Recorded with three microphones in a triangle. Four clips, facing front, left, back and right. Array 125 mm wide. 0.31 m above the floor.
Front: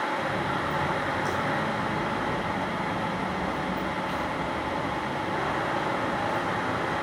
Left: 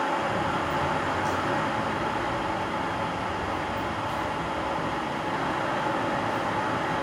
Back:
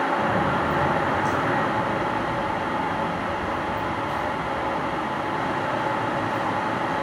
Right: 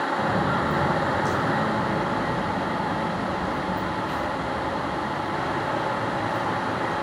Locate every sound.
0.2 s footsteps: 120° right, 4 m; by 6.9 s 45° right, 10.5 m